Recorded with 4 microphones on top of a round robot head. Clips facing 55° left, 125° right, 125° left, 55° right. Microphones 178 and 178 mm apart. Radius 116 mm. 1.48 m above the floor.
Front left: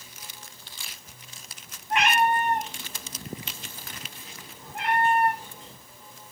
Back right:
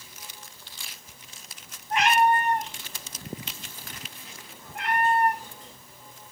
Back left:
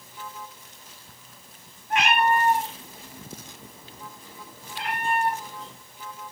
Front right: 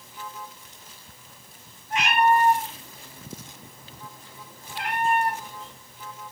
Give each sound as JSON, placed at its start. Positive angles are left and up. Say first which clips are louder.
{"t": 1.9, "sound": "a cat meowing", "louder": "back right 2 dB, front right 1 dB", "azimuth_deg": 85, "distance_m": 3.0}